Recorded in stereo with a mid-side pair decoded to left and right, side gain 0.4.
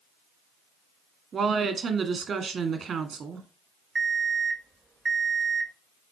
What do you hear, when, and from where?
1.3 s a woman speaking: 55° right, 1.9 m
4.0 s an alarm clock: 35° right, 1.0 m